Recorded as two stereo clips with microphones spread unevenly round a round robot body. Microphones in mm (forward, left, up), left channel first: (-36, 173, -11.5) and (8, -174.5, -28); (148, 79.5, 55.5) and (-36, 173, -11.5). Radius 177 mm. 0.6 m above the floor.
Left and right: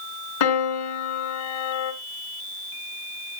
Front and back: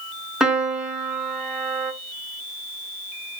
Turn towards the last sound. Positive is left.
turn(degrees=60)